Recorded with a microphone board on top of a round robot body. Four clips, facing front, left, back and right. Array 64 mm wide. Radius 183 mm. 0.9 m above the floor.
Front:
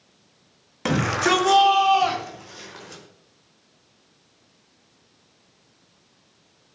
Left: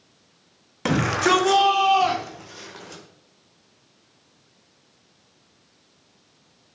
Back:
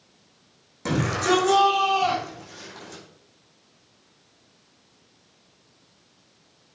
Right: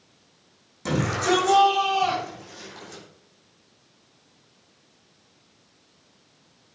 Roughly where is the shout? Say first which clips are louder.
Left 3 dB, front 2 dB; ahead left.